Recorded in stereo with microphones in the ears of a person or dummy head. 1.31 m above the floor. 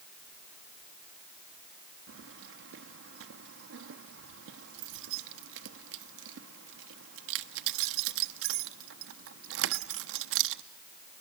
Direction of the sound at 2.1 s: 65° right (ahead or behind).